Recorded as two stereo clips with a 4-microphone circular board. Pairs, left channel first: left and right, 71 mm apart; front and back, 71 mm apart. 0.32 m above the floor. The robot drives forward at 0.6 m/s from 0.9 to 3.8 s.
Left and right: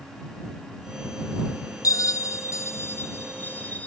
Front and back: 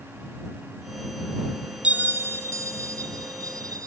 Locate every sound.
1.8 s a bell: 110° left, 0.8 m; by 3.9 s 155° left, 1.6 m